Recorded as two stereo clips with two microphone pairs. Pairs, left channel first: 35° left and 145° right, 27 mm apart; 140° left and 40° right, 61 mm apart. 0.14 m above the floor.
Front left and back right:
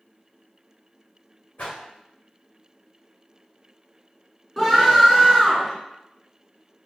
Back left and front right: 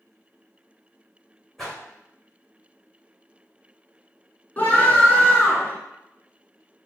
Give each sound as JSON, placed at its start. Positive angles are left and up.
{"t": 1.6, "sound": "a whoosh", "azimuth_deg": 55, "distance_m": 2.0}
{"t": 4.6, "sound": "a scream", "azimuth_deg": 110, "distance_m": 1.8}